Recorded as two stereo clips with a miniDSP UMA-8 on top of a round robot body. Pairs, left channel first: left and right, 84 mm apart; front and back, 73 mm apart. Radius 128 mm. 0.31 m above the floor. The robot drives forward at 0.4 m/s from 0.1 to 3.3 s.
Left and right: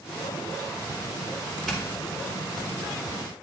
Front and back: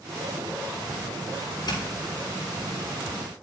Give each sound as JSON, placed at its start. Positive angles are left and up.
{"t": 1.7, "sound": "a doorbell", "azimuth_deg": 0, "distance_m": 4.5}